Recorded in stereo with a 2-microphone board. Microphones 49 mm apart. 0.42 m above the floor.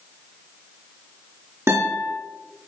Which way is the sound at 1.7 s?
60° right (ahead or behind).